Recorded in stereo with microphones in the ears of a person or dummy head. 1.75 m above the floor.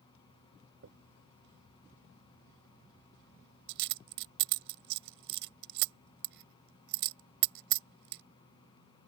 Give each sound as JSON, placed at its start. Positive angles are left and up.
{"t": 0.8, "sound": "a dropped coin", "side_deg": -65}